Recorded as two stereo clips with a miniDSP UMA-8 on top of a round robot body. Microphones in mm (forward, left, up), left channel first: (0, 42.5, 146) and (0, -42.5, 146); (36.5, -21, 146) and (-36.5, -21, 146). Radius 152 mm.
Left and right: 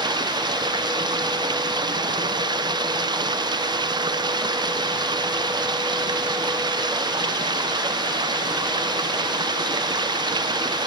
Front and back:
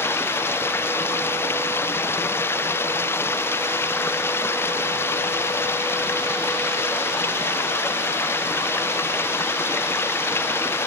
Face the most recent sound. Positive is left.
turn(degrees=-60)